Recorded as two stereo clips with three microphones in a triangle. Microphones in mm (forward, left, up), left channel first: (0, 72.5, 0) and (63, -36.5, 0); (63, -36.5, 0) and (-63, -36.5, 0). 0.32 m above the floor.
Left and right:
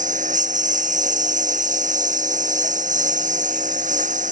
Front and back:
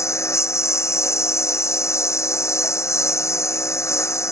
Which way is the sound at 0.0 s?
70° right.